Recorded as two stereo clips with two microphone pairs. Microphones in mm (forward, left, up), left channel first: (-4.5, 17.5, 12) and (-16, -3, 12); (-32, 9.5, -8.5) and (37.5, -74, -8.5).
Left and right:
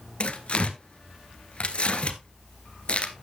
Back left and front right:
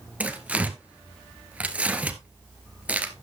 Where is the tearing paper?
25° left, 1.2 m.